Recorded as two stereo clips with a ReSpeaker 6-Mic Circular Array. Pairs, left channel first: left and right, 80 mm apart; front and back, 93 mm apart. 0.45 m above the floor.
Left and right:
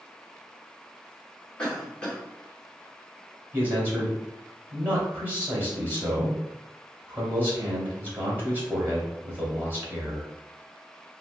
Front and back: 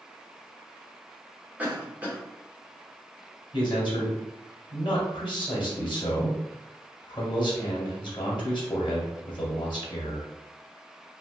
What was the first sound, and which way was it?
A cough, 145° left.